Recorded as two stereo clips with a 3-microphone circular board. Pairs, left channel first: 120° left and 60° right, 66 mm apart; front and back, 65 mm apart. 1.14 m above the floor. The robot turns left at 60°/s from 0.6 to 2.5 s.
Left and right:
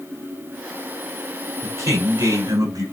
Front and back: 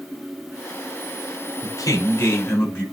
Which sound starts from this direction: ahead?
A man speaking, at 1.6 s.